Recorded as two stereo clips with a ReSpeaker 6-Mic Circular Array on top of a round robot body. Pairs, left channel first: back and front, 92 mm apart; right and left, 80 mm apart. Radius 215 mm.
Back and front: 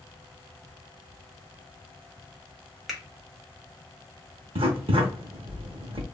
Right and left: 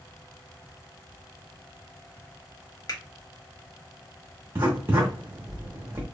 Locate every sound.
2.9 s a finger snap: 90° right, 1.5 m
4.5 s writing: 25° left, 0.6 m